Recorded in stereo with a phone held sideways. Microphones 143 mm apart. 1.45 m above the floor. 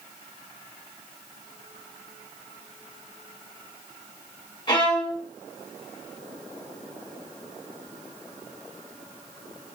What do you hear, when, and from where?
4.7 s a violin: 30° left (ahead or behind), 1.8 m